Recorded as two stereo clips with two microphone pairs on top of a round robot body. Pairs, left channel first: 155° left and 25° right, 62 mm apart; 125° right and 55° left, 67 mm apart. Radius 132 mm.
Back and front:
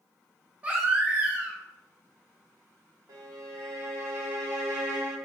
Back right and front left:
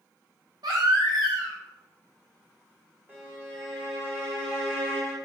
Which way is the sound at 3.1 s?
5° right.